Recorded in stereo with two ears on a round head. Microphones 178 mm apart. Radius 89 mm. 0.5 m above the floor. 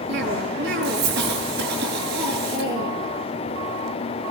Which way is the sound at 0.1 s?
55° right (ahead or behind).